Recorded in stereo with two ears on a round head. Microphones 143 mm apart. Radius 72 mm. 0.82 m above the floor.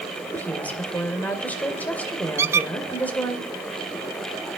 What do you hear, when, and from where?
0.3 s a woman speaking: 10° left (ahead or behind), 2.5 m
2.4 s a squeak: 15° right (ahead or behind), 0.6 m